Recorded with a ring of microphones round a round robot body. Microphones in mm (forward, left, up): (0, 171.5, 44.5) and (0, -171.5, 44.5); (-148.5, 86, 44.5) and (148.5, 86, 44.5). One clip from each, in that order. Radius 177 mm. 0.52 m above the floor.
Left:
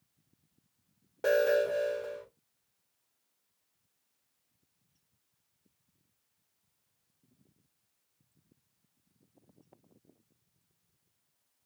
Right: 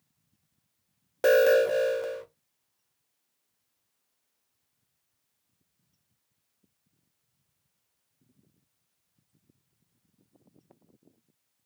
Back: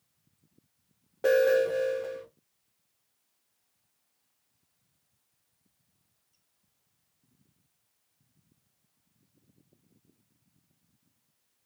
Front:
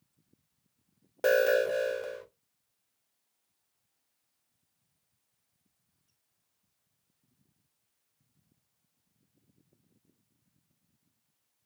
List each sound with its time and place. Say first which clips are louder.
1.2 s an alarm: right 6 dB, back 2 dB; 45° right, 0.8 m